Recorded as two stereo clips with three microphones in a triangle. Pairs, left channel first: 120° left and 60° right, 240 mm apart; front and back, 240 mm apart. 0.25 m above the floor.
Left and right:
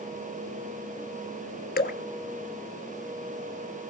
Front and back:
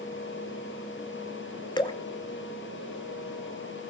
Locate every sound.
1.8 s dripping: 70° left, 1.0 m